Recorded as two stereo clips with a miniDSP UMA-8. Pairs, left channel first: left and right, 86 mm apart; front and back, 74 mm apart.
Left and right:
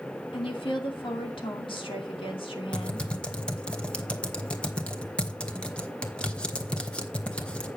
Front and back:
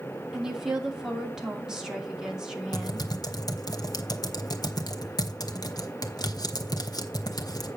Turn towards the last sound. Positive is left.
turn(degrees=15)